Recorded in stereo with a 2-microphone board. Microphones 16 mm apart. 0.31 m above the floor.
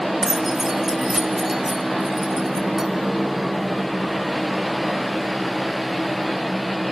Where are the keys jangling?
35° right (ahead or behind), 0.8 m.